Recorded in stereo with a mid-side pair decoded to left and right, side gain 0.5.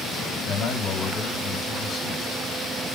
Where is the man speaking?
45° left, 5 m.